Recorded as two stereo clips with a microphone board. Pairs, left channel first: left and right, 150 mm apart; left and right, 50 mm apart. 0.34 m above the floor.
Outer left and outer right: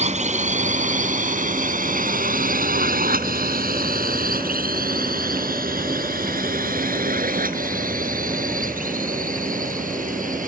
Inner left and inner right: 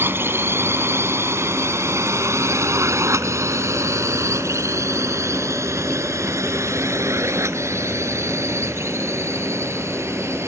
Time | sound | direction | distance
0.0 | a drone | 50° right (ahead or behind) | ?